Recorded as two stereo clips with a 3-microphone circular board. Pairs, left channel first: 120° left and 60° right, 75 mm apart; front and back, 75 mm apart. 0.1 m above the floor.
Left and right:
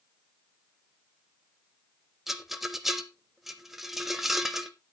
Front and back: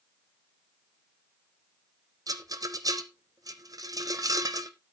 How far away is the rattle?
About 1.2 m.